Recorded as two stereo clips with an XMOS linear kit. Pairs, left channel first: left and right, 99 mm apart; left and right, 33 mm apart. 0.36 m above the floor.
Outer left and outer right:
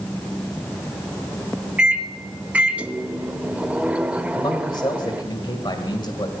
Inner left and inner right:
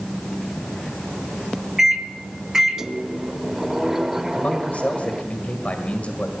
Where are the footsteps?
I don't hear footsteps.